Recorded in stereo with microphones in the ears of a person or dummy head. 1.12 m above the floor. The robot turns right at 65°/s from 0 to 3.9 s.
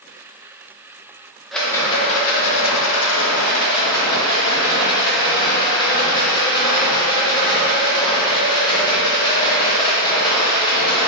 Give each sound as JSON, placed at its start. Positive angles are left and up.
{"t": 1.5, "sound": "a rattle", "azimuth_deg": 5, "distance_m": 0.6}